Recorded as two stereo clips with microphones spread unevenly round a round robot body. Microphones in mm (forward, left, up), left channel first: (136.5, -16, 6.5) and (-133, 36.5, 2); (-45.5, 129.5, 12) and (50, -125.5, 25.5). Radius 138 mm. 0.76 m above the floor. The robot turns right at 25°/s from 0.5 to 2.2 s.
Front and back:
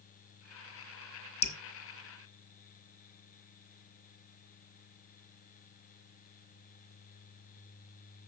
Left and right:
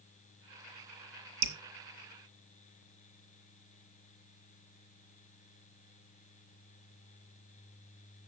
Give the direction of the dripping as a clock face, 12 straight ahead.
2 o'clock.